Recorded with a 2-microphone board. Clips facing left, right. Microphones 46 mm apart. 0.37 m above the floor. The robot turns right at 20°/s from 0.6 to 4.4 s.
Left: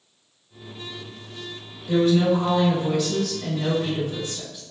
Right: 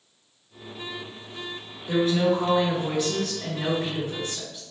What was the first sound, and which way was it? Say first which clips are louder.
A woman speaking: left 3 dB; 20° right (ahead or behind).